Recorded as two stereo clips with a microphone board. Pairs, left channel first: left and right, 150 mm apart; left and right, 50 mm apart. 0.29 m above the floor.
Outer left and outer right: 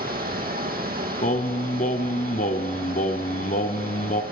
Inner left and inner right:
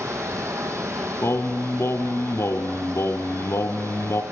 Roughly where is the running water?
Right.